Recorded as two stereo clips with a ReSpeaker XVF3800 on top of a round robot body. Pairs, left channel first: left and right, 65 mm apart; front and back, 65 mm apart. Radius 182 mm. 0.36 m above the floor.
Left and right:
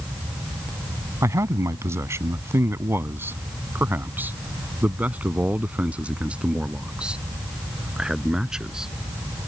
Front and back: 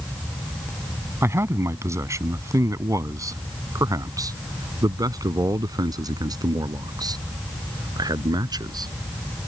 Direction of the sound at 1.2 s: 130° right.